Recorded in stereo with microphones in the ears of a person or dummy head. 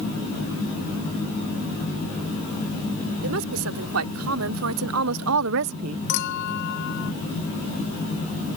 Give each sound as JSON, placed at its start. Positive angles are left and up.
{"t": 3.2, "sound": "a woman speaking", "side_deg": -80}
{"t": 6.1, "sound": "a clink", "side_deg": 60}